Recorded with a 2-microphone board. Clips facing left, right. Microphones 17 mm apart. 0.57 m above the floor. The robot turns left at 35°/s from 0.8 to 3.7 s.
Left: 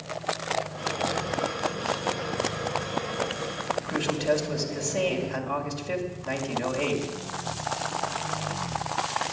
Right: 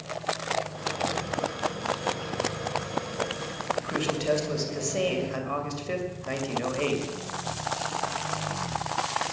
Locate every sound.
3.8 s a man speaking: 10° right (ahead or behind), 2.5 m